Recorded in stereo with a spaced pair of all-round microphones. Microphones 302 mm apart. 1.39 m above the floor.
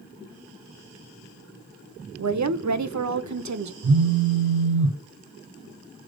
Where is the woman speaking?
65° right (ahead or behind), 0.5 m.